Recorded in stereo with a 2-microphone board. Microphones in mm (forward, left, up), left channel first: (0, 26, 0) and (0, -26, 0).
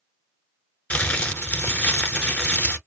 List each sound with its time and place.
0.9 s crumpling: 25° left (ahead or behind), 0.8 m